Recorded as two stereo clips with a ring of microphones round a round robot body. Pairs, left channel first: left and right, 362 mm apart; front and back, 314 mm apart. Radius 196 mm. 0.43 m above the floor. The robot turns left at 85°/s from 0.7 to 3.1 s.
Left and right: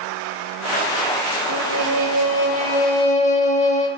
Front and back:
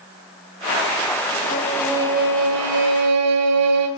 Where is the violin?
65° right, 1.3 m; by 3.9 s 160° left, 1.3 m.